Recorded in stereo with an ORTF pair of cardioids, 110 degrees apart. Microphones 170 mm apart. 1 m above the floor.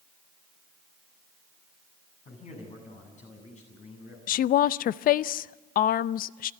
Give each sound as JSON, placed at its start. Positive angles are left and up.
{"t": 2.2, "sound": "a man speaking", "azimuth_deg": 45, "distance_m": 8.0}
{"t": 4.3, "sound": "a woman speaking", "azimuth_deg": 60, "distance_m": 0.6}